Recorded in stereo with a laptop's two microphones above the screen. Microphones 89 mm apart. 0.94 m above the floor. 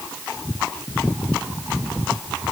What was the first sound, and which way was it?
Only background noise.